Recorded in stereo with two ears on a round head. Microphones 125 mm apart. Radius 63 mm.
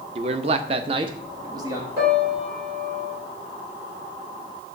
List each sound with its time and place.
0.1 s a man speaking: 40° right (ahead or behind), 0.7 m; by 1.9 s 25° right (ahead or behind), 1.3 m
2.0 s a piano: 80° right, 5.5 m